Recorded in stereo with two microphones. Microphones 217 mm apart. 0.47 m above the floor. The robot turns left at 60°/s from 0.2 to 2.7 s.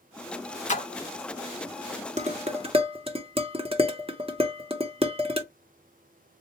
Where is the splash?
35° left (ahead or behind), 0.7 m; by 0.9 s 25° left (ahead or behind), 0.7 m.